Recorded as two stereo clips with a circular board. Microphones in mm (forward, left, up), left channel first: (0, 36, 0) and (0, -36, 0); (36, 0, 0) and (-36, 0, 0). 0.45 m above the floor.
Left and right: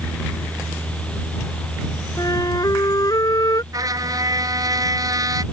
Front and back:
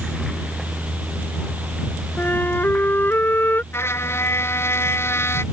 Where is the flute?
65° left.